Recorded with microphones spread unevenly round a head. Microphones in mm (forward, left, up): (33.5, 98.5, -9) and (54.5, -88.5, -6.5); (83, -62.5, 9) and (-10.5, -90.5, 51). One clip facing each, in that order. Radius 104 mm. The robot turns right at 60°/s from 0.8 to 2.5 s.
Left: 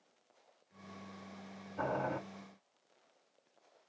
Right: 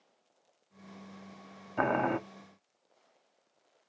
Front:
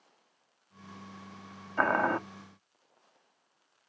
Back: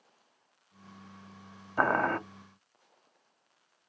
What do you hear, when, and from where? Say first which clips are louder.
1.8 s boiling: right 7 dB, even; 85° right, 0.5 m; by 2.2 s 60° right, 0.5 m